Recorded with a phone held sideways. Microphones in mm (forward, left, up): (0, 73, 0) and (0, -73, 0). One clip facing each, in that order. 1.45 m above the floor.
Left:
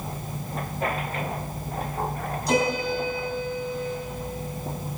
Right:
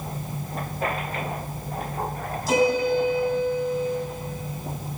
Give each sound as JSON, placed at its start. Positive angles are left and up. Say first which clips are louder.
{"t": 2.5, "sound": "a piano", "louder": "right 4 dB", "side_deg": 0, "distance_m": 3.0}